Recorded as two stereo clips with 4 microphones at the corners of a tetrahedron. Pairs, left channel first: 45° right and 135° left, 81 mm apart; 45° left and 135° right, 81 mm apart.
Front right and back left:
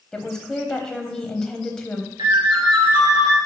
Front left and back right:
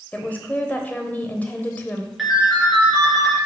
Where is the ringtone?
140° left, 2.5 m.